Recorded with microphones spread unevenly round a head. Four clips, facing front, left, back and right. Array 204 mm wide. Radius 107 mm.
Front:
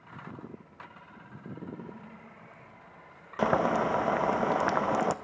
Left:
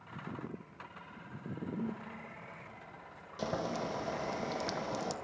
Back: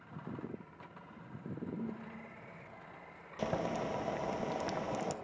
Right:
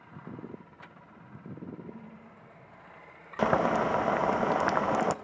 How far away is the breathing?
About 4 m.